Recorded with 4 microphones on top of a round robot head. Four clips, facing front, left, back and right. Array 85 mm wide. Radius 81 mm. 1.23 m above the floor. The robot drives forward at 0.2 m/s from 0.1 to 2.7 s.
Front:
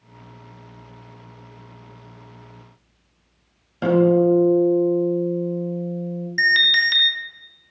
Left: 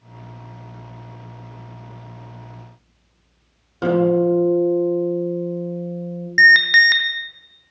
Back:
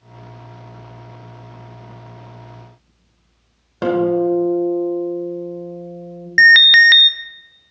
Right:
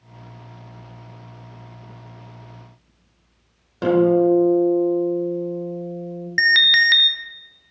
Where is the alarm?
160° left, 0.5 m.